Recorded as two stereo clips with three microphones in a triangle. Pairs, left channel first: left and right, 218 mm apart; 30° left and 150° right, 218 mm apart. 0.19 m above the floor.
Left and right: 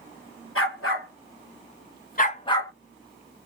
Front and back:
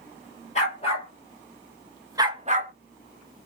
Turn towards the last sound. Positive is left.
turn(degrees=170)